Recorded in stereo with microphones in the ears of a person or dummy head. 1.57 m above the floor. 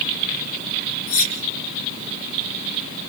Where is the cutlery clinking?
75° left (ahead or behind), 3.5 m.